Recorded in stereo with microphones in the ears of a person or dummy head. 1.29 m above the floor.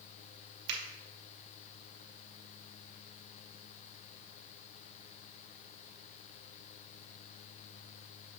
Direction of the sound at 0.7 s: 55° right (ahead or behind).